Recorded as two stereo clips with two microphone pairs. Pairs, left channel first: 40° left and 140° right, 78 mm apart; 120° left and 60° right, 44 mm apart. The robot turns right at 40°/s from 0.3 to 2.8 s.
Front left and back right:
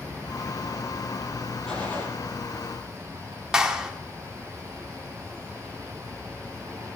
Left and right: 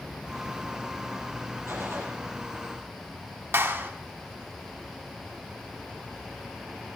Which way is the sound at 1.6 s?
40° right.